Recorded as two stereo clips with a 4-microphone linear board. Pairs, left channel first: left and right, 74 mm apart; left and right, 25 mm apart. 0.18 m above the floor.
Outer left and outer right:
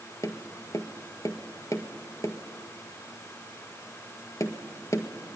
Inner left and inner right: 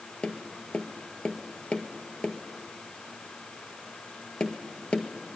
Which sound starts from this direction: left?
Tapping, at 0.2 s.